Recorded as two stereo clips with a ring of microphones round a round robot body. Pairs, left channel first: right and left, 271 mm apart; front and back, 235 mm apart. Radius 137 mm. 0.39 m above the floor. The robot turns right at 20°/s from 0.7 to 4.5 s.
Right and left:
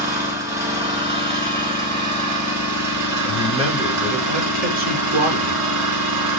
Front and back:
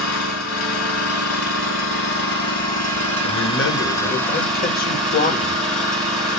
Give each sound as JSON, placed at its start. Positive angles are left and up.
{"t": 0.0, "sound": "an engine running", "azimuth_deg": 15, "distance_m": 3.5}
{"t": 3.2, "sound": "a man speaking", "azimuth_deg": 15, "distance_m": 1.6}